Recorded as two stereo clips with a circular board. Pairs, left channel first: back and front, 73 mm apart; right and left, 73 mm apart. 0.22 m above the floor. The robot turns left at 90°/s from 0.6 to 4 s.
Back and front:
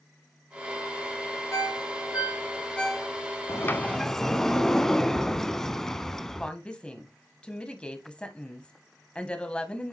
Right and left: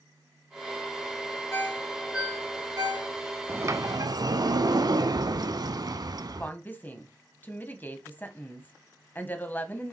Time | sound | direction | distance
1.5 | a ringtone | 140° right | 1.3 m
3.5 | a sliding door | 145° left | 0.7 m
6.4 | a woman speaking | 120° right | 1.4 m